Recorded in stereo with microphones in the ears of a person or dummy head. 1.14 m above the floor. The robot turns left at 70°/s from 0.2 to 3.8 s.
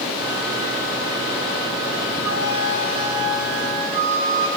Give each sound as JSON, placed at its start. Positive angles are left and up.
{"t": 2.2, "sound": "a flute", "azimuth_deg": -10, "distance_m": 3.0}